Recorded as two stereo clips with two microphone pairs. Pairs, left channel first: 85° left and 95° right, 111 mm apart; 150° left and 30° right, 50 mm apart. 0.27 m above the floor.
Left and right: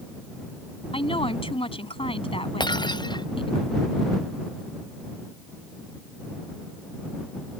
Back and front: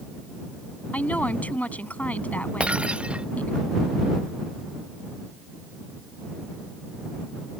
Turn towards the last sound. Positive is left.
turn(degrees=40)